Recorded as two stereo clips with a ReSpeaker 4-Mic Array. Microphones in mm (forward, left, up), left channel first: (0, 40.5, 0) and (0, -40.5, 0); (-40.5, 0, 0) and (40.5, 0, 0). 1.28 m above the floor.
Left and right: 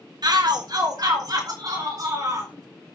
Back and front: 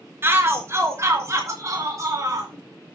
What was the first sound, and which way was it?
A shout, 60° right.